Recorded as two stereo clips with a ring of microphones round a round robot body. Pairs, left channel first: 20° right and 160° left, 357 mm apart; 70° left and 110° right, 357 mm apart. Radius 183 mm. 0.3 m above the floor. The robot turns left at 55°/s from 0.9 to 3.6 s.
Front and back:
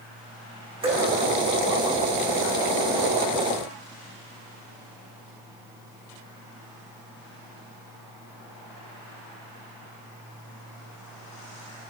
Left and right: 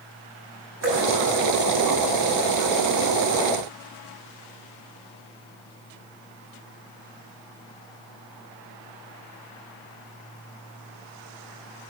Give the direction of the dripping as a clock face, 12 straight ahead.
4 o'clock.